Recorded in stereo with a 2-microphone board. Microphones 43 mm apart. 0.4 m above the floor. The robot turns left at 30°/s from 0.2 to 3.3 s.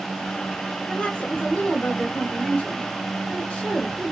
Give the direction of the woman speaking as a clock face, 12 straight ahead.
8 o'clock.